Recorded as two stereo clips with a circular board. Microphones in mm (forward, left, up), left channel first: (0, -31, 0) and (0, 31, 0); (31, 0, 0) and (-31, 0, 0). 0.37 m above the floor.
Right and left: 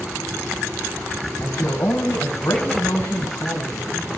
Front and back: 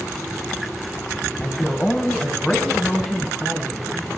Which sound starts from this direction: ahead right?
A man speaking, at 1.4 s.